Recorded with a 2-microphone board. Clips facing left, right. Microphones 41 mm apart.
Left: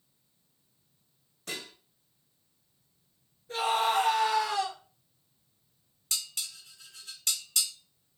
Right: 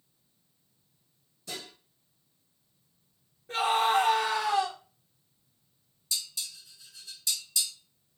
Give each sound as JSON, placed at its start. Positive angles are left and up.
{"t": 1.5, "sound": "dishes clattering", "side_deg": 60, "distance_m": 1.1}
{"t": 3.5, "sound": "a scream", "side_deg": -50, "distance_m": 1.2}
{"t": 6.1, "sound": "dishes clattering", "side_deg": 60, "distance_m": 0.8}